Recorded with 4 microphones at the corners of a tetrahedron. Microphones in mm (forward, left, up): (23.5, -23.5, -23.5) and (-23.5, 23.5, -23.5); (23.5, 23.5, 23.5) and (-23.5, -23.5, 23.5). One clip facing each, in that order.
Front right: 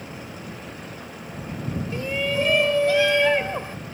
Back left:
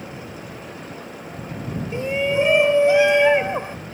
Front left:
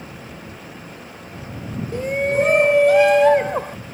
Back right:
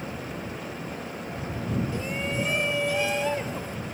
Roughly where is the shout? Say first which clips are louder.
Back left 5 dB, front left 10 dB; left.